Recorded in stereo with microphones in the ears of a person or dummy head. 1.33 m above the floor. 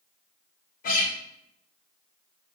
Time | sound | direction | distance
0.8 | a guitar | 45° left (ahead or behind) | 0.8 m